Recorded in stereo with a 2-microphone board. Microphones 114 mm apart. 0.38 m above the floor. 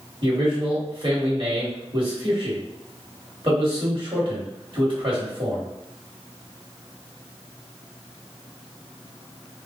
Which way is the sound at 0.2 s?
50° right (ahead or behind).